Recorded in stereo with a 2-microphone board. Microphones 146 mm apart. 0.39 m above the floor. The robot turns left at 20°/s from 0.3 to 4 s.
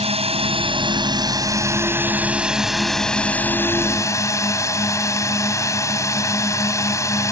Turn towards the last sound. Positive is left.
turn(degrees=155)